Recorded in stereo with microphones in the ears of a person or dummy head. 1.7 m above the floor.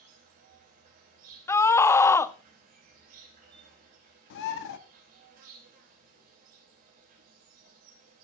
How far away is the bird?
About 1.2 m.